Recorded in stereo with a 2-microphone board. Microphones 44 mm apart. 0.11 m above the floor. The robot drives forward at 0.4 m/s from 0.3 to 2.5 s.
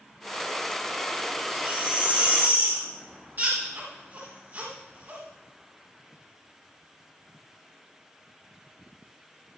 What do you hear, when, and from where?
1.5 s a baby crying: 50° right (ahead or behind), 9.5 m